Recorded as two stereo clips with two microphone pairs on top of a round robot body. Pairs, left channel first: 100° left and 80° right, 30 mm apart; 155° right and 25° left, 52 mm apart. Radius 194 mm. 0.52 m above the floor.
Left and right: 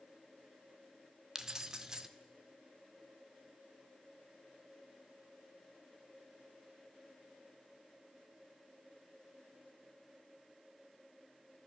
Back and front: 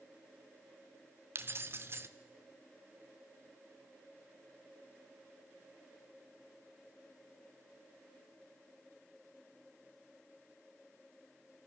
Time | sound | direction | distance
1.4 | keys jangling | 15° right | 1.5 m